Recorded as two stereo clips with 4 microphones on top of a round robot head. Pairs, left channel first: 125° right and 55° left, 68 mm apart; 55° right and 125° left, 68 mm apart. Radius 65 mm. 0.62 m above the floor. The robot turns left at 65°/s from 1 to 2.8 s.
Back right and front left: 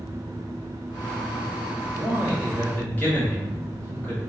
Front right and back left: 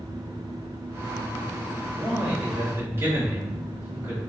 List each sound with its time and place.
1.8 s a man speaking: 120° right, 1.6 m; by 4.2 s 175° left, 1.6 m